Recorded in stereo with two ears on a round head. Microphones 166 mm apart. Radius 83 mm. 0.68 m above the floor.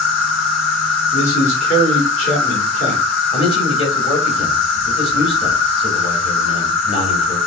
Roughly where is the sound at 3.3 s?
Left.